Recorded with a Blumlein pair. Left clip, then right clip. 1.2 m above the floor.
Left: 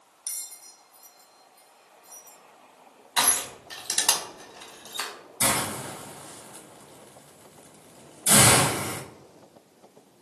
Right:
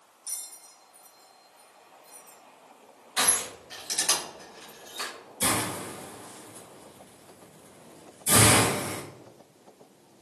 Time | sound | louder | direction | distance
0.3 | a bell | left 2 dB | 60° left | 1.0 m
3.2 | crushing | left 2 dB | 65° left | 1.3 m
5.4 | a hiss | left 2 dB | 65° left | 1.1 m